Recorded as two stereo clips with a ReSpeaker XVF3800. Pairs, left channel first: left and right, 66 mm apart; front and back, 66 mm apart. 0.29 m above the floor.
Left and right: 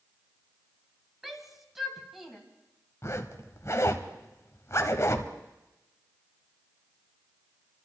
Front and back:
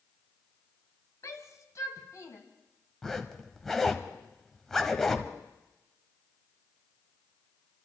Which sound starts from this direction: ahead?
A shout, at 1.2 s.